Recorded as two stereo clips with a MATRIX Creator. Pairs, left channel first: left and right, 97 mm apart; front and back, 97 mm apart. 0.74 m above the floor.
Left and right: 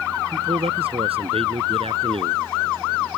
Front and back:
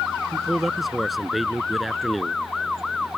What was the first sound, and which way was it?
A man speaking, 90° right.